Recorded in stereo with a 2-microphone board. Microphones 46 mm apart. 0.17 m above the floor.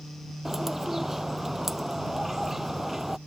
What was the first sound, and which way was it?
A bird, 5° right (ahead or behind).